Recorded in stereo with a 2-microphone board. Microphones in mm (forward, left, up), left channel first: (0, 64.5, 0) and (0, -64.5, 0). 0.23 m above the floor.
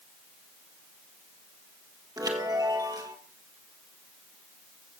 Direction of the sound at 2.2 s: 25° right (ahead or behind).